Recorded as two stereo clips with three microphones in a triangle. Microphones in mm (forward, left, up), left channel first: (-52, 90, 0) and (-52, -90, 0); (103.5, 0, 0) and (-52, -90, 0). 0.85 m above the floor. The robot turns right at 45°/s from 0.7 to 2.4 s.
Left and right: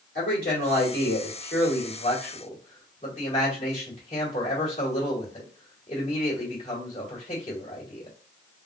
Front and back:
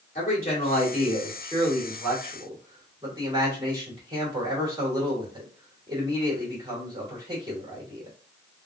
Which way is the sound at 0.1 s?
65° left.